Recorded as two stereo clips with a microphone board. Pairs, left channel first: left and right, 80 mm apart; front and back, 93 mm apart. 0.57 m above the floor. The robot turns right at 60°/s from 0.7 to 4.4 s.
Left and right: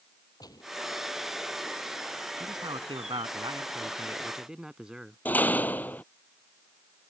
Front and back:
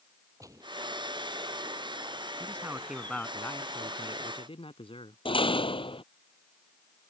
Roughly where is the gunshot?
Behind left.